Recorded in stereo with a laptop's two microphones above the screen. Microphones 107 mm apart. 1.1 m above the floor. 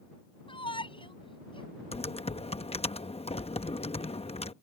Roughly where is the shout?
Left.